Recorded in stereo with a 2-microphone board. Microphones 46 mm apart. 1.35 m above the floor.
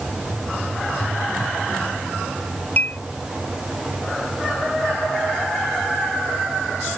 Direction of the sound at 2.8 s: 40° left (ahead or behind).